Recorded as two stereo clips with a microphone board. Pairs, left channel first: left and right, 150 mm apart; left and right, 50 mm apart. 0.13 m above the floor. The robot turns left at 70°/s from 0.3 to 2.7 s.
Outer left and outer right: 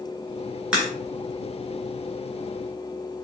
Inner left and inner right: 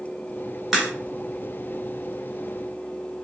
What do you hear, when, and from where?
0.7 s a crack: 5° right (ahead or behind), 1.7 m; by 0.9 s centre (ahead or behind), 1.7 m